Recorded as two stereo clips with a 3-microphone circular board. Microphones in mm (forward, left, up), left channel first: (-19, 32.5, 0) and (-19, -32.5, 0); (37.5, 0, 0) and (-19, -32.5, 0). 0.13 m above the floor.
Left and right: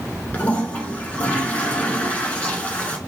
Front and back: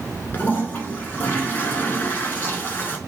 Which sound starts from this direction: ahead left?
A toilet flushing, at 0.3 s.